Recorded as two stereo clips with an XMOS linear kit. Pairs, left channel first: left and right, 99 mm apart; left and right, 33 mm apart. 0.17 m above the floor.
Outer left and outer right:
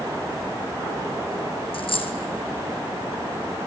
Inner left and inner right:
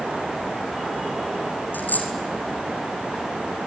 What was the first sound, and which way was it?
A dropped coin, 65° left (ahead or behind).